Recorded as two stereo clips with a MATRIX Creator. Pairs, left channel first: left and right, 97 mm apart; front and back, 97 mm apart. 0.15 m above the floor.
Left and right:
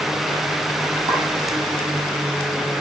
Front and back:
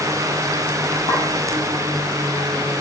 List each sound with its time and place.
1.1 s a clink: 40° right, 4 m